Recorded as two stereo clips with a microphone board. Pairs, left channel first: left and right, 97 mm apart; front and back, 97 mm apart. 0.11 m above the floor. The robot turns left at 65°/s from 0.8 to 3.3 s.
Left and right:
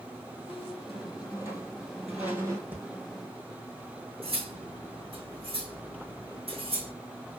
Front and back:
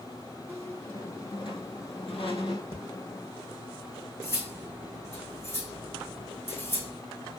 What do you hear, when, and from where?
0.5 s a squeak: 80° left, 2 m; by 2.6 s 35° right, 2 m
2.7 s breathing: 15° right, 2.5 m; by 2.8 s 25° right, 2.5 m
4.2 s cutlery clinking: 65° right, 2.5 m